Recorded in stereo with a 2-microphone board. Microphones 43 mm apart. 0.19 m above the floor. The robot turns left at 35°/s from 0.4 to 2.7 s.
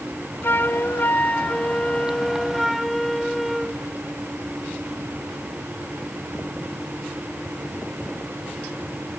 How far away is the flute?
About 0.7 m.